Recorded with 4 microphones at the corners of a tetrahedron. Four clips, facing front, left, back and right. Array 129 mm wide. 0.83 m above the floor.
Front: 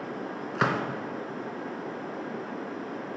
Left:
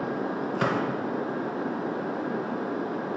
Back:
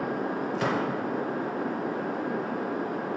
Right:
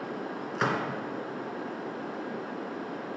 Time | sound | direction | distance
0.6 | a gunshot | 15° left | 2 m